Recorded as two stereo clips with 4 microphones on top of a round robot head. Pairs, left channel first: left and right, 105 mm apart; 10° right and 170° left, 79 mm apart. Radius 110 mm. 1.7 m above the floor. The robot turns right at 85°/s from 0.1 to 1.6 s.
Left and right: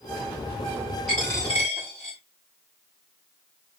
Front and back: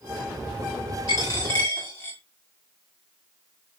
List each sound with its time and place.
1.1 s a dropped coin: 5° left, 1.6 m; by 2.2 s 50° left, 1.6 m